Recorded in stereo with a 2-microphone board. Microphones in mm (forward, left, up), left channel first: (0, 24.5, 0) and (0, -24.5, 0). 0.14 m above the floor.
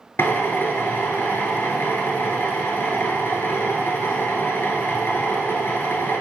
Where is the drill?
50° left (ahead or behind), 1.4 m.